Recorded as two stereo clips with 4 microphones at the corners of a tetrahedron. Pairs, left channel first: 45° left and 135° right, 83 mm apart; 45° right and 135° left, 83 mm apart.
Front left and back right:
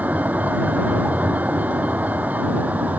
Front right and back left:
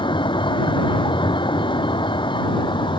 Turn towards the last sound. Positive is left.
turn(degrees=-65)